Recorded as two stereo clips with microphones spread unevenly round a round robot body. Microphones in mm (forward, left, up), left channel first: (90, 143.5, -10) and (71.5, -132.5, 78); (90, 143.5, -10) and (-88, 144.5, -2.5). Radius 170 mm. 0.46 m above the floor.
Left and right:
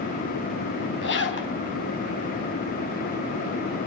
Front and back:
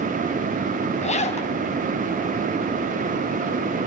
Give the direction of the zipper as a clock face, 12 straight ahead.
10 o'clock.